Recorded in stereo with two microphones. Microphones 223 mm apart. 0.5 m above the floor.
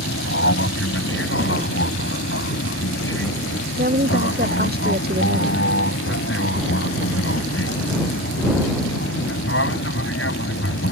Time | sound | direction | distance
0.0 | an aircraft | 65° left (ahead or behind) | ?
3.8 | a woman speaking | 45° right (ahead or behind) | ?